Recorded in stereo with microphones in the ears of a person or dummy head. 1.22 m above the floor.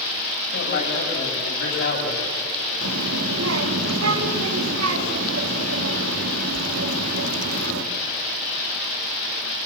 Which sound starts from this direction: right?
A child speaking, at 2.8 s.